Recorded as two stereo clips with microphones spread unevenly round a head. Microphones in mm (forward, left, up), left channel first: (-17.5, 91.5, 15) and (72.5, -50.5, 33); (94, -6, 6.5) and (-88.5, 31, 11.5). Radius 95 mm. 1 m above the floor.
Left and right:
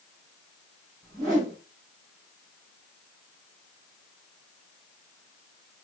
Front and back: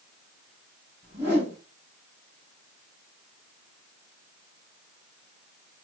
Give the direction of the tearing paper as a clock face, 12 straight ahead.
I don't hear tearing paper.